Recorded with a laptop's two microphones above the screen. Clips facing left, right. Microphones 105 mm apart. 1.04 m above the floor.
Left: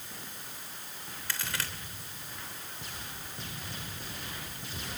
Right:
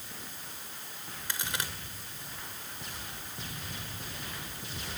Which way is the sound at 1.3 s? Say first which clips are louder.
Right 1 dB; 20° right (ahead or behind).